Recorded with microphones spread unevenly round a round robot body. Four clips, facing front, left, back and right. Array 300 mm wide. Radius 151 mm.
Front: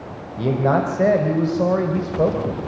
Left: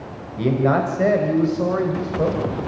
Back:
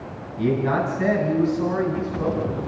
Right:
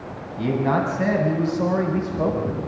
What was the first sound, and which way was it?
A man speaking, 40° left.